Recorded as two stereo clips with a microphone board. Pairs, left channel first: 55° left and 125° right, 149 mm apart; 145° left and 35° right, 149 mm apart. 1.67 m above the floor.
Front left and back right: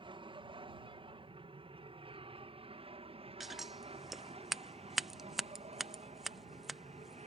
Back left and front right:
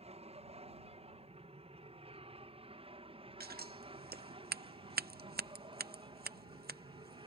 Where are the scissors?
35° right.